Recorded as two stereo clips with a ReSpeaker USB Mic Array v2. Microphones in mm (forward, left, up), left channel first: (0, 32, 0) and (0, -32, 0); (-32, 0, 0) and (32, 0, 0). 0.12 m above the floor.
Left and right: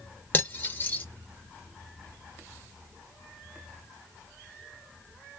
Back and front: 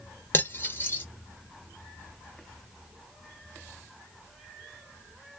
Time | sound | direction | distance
0.3 | cutlery clinking | 140° left | 0.9 m